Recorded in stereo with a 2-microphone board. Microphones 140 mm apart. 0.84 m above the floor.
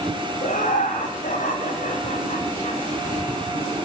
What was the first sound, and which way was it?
Laughter, 70° left (ahead or behind).